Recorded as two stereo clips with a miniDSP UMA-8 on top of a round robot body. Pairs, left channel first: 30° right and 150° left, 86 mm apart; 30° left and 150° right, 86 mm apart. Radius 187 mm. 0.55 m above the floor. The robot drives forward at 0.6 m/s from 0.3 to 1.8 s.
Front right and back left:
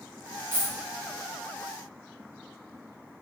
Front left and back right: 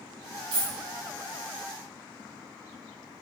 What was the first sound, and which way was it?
A dropped coin, 145° right.